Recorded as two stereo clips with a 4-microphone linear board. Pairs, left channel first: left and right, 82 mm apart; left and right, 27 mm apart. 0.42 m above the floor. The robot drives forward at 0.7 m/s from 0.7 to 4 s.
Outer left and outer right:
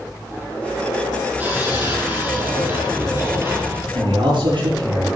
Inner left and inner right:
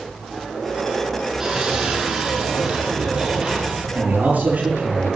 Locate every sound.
1.4 s sawing: 20° right (ahead or behind), 5 m; by 3.9 s 30° right (ahead or behind), 3.5 m
4.0 s a man speaking: 75° right (ahead or behind), 7 m